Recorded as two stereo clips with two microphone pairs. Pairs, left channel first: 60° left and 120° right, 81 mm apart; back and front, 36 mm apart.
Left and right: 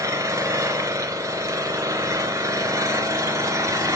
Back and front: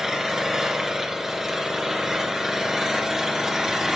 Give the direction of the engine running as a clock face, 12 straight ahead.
2 o'clock.